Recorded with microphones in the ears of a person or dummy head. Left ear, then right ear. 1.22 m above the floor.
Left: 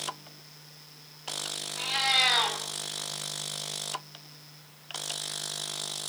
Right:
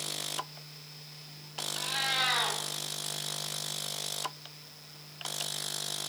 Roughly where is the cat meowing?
Left.